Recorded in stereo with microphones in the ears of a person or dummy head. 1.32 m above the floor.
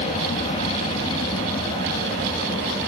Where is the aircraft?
30° left (ahead or behind); by 2.9 s 20° left (ahead or behind).